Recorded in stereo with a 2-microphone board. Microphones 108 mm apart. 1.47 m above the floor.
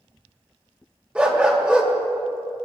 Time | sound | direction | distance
1.1 | a dog barking | 10° right (ahead or behind) | 2 m